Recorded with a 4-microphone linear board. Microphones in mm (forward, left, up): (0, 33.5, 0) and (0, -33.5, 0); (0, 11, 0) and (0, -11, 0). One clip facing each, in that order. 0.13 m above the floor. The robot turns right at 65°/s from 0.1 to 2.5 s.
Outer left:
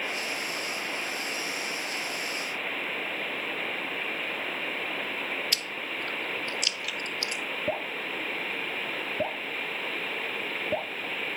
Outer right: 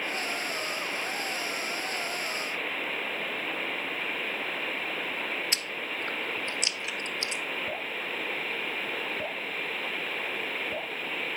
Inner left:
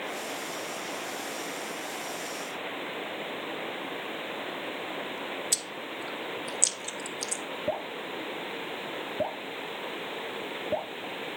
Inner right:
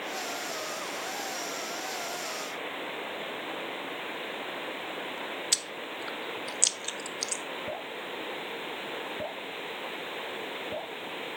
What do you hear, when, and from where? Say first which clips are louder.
5.5 s chewing: even, inner right 1 dB; 25° right (ahead or behind), 0.6 m
7.7 s dripping: outer left 3 dB, inner left 4 dB; 40° left (ahead or behind), 1.1 m